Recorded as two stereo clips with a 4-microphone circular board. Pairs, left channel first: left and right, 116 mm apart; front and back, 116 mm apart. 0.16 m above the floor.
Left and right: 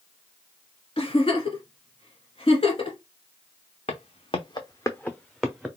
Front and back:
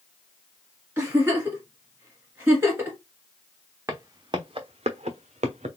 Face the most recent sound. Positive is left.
turn(degrees=-170)